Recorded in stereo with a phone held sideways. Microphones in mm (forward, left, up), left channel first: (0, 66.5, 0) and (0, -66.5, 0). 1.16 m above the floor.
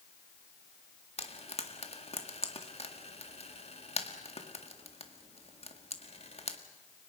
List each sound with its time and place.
1.2 s frying: 50° left (ahead or behind), 1.8 m